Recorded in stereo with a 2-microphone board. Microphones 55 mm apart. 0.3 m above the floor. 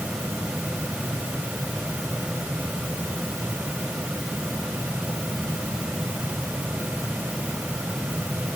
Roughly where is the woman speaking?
No woman speaking in this recording.